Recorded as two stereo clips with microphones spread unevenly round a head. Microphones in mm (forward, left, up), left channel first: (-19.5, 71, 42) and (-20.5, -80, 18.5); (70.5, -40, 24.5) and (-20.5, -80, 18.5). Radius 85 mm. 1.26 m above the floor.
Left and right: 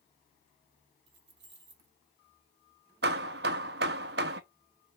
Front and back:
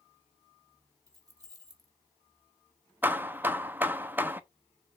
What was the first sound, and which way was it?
Keys jangling, 105° right.